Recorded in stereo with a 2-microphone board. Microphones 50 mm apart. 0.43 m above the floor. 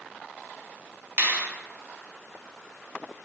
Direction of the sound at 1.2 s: 55° right (ahead or behind).